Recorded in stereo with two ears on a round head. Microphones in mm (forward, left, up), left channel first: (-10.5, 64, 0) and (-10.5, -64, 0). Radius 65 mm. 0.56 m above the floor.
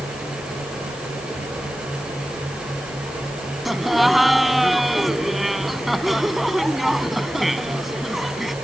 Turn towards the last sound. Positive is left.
turn(degrees=0)  # may be behind; listen again after turning